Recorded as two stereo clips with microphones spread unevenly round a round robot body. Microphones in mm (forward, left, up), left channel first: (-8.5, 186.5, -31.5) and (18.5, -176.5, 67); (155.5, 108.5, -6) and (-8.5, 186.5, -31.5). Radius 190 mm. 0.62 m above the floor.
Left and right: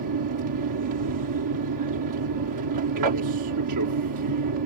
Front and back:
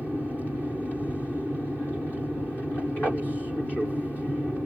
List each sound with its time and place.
0.0 s an aircraft: 115° right